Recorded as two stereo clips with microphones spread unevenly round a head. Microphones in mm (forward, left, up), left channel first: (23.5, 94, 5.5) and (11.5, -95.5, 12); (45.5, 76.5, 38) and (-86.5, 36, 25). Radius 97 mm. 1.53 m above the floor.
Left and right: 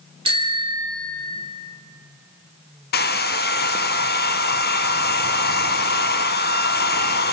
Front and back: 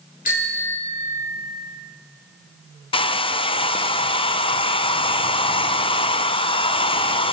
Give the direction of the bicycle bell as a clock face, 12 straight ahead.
1 o'clock.